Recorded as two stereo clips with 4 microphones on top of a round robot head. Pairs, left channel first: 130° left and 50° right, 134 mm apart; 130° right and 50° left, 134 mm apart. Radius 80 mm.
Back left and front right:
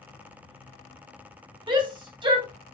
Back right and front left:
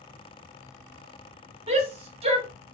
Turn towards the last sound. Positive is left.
turn(degrees=5)